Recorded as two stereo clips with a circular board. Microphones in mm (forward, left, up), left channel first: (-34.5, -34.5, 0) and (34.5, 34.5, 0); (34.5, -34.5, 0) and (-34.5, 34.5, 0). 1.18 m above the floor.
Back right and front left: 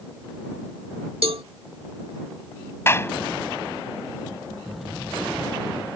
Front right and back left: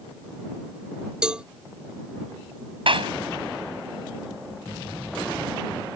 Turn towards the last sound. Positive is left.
turn(degrees=160)